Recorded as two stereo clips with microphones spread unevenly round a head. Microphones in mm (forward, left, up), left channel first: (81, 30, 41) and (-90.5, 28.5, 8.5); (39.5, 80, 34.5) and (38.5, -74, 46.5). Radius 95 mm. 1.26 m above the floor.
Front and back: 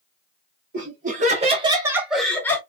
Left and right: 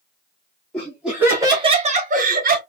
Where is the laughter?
170° left, 1.1 m; by 2.6 s 80° right, 1.0 m.